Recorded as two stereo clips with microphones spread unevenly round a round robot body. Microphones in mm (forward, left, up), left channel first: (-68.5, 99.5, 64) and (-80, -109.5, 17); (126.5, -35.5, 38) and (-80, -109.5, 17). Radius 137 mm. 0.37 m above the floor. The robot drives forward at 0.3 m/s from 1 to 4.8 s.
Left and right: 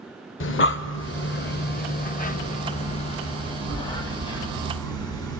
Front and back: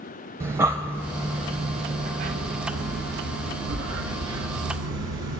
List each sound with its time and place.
0.4 s breathing: 120° left, 0.6 m; by 5.4 s 160° left, 1.5 m